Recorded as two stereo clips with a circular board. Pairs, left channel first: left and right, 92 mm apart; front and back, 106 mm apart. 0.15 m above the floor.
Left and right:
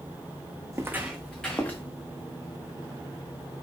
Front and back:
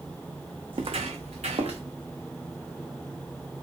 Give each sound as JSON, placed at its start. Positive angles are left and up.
{"t": 0.7, "sound": "footsteps", "azimuth_deg": -140, "distance_m": 0.6}